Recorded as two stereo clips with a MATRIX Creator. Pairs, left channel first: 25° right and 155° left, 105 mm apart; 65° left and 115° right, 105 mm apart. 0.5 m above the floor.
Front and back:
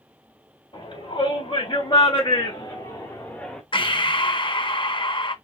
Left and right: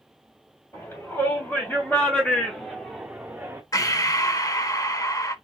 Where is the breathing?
15° left, 0.7 m.